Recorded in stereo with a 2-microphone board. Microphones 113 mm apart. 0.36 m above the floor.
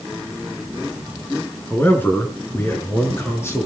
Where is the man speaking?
20° left (ahead or behind), 5 m; by 3.7 s 25° left (ahead or behind), 6.5 m.